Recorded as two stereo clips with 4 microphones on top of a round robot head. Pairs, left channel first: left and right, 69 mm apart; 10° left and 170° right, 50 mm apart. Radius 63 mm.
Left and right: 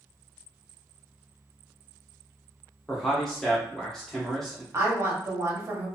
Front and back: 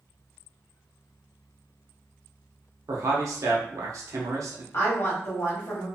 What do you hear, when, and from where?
2.9 s a man speaking: 175° left, 0.7 m
4.7 s a woman speaking: 40° right, 1.0 m